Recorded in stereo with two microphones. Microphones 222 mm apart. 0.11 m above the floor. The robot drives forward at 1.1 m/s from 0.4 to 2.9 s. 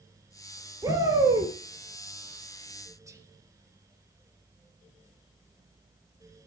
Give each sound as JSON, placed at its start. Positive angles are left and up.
{"t": 0.8, "sound": "a shout", "side_deg": -15, "distance_m": 2.5}
{"t": 3.1, "sound": "whispering", "side_deg": -15, "distance_m": 1.6}